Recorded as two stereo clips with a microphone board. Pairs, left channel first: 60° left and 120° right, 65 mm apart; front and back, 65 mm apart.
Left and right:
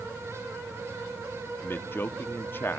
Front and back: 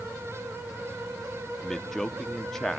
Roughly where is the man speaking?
Left.